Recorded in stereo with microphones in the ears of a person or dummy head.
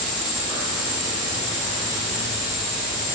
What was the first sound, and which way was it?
An insect, 15° right (ahead or behind).